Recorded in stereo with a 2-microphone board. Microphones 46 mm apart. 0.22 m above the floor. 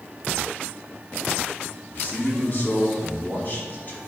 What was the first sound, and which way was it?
A man speaking, 40° left (ahead or behind).